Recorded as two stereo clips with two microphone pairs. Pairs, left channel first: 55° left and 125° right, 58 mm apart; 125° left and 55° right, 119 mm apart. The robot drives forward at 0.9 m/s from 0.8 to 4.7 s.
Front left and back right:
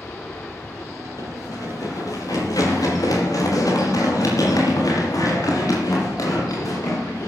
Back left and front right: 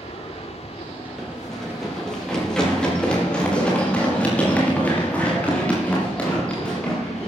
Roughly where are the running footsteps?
Ahead left.